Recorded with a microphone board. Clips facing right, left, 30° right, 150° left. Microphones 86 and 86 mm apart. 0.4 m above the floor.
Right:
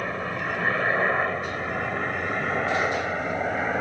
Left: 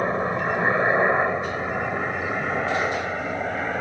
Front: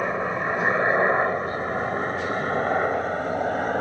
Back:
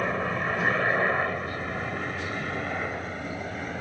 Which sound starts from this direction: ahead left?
A helicopter, at 0.0 s.